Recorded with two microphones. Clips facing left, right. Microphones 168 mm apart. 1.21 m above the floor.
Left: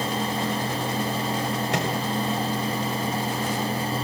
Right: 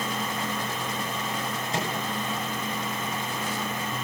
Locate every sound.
1.7 s a microwave: 80° left, 5.5 m